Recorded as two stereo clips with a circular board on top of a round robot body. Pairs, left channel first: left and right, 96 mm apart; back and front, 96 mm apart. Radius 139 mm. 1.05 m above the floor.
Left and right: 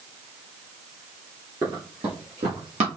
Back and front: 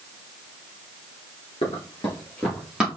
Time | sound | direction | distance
1.6 | running footsteps | 140° right | 1.4 m